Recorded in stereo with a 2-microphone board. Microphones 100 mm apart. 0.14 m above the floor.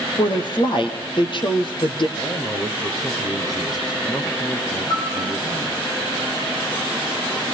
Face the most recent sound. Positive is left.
turn(degrees=45)  # may be behind; listen again after turning